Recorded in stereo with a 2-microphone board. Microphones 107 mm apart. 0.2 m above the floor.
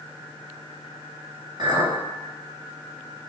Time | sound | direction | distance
1.6 | a clink | 50° right (ahead or behind) | 1.5 m